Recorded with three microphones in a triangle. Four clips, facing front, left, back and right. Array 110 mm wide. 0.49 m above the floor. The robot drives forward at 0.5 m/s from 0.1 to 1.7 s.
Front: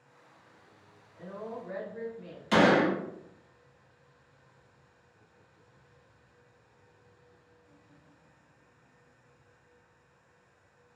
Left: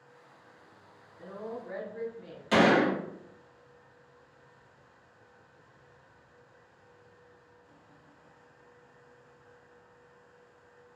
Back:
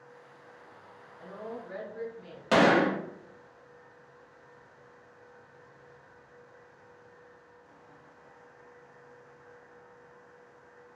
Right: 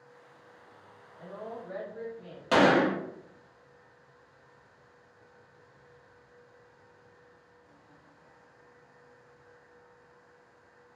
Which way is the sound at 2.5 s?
150° right.